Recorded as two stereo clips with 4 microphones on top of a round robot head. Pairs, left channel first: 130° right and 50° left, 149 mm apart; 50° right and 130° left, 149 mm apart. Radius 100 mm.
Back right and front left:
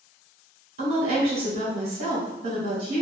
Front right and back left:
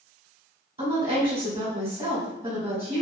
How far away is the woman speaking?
About 1.0 m.